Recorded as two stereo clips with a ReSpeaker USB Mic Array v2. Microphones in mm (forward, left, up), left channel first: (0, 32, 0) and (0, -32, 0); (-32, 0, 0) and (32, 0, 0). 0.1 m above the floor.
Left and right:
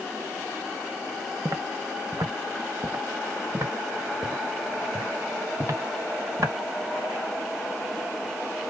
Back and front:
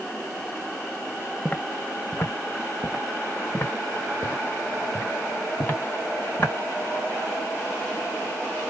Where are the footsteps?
115° right, 0.7 m; by 6.5 s 125° right, 3.5 m.